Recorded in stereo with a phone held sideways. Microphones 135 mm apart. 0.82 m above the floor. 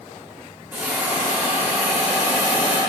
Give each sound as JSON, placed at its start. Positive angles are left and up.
{"t": 0.7, "sound": "a hiss", "side_deg": -15, "distance_m": 2.0}